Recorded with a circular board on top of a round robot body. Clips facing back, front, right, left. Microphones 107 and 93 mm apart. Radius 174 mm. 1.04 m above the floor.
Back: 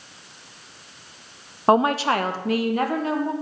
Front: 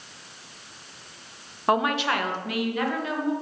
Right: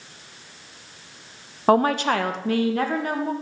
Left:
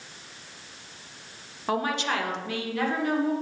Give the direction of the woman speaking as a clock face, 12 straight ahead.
4 o'clock.